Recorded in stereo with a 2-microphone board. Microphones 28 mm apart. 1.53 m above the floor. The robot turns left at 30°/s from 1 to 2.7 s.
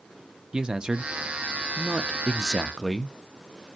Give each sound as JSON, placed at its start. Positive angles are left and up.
{"t": 0.5, "sound": "a man speaking", "side_deg": -25, "distance_m": 0.5}